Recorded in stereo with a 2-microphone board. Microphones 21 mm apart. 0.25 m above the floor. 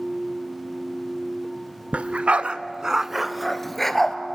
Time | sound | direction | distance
1.9 | a dog barking | 75° right (ahead or behind) | 1.0 m